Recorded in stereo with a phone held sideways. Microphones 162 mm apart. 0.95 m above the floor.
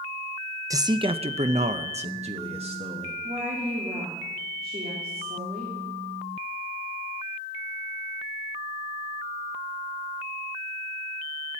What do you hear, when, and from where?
0.7 s a man speaking: 20° right (ahead or behind), 0.6 m; by 3.1 s 35° right (ahead or behind), 1.4 m
3.2 s a woman speaking: 55° right (ahead or behind), 3 m